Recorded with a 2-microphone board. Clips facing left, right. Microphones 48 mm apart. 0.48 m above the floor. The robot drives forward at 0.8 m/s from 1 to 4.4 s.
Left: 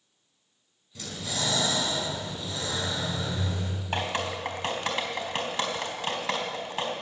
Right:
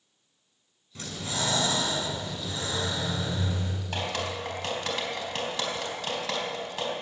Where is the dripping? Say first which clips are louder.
Left 2 dB; 20° left (ahead or behind), 3.5 m.